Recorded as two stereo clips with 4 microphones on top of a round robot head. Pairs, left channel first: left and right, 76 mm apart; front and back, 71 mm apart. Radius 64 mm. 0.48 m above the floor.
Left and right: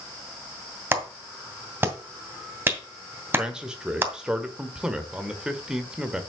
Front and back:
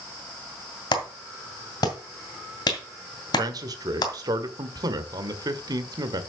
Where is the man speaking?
170° right, 1.5 m.